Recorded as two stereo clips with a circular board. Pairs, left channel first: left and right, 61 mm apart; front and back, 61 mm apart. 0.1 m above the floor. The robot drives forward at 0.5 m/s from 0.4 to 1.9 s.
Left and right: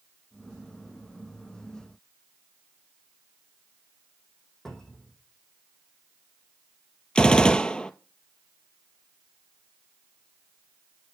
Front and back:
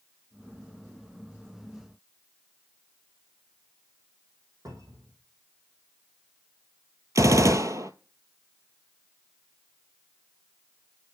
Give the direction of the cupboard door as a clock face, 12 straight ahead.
6 o'clock.